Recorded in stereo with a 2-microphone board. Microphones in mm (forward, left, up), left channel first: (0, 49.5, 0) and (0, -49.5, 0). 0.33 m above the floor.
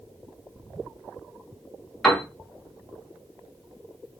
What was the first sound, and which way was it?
A piano, 5° left (ahead or behind).